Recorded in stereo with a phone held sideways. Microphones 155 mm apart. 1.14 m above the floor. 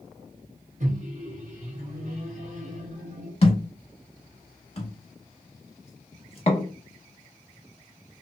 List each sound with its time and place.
0.8 s a microwave: 55° right (ahead or behind), 0.7 m
3.4 s a thud: 40° left (ahead or behind), 0.8 m